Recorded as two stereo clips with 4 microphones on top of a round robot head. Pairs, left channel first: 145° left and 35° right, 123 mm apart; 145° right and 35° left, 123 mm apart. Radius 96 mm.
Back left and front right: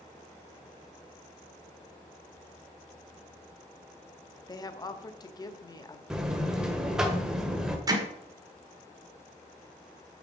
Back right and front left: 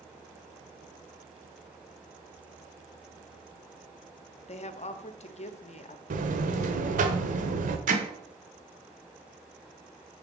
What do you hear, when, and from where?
4.5 s a woman speaking: 160° right, 1.0 m
6.1 s a buzzer: 50° left, 1.2 m
7.9 s hammering: 30° left, 1.6 m